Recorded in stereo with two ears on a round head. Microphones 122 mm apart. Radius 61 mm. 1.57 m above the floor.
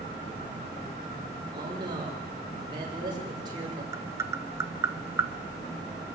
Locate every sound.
1.5 s a man speaking: 30° right (ahead or behind), 6 m
3.9 s tapping: 20° right (ahead or behind), 0.8 m